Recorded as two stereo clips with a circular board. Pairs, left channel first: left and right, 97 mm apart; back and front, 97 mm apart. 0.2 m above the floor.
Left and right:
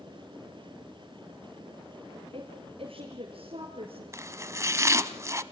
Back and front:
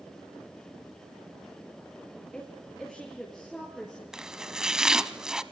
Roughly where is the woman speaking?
Right.